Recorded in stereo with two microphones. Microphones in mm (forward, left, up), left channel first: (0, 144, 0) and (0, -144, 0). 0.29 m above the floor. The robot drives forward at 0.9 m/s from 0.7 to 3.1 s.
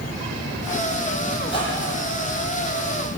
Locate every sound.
1.4 s a squeak: 15° left (ahead or behind), 6.5 m